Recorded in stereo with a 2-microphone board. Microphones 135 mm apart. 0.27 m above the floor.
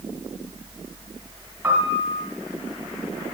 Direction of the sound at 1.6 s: 15° right (ahead or behind).